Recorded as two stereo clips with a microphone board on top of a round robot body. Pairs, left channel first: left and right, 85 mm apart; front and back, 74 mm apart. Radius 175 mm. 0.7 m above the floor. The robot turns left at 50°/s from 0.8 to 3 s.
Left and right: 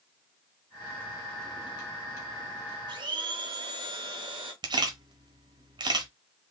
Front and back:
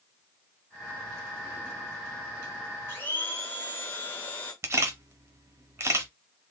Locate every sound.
2.9 s a blender: 55° right, 0.8 m; by 4.5 s 65° right, 0.8 m
4.6 s a camera shutter: 125° right, 0.5 m